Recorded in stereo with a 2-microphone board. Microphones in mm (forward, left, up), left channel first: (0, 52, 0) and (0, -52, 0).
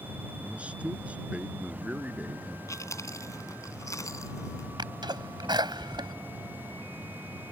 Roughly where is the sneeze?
Right.